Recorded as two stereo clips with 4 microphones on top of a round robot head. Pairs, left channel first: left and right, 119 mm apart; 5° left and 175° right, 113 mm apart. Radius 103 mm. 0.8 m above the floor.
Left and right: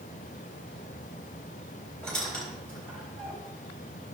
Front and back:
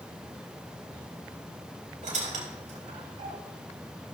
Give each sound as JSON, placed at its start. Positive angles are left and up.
{"t": 2.0, "sound": "a squeak", "azimuth_deg": 175, "distance_m": 3.0}